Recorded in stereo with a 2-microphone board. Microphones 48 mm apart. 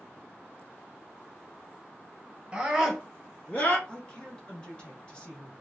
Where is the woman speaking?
20° left (ahead or behind), 1.3 m.